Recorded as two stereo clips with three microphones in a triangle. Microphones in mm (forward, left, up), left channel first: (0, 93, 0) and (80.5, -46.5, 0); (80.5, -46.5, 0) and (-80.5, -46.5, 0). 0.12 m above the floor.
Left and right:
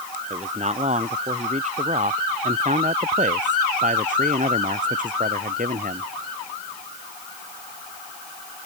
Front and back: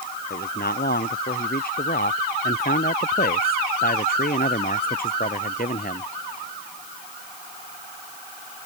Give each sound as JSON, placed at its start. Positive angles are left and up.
{"t": 0.3, "sound": "a man speaking", "azimuth_deg": -15}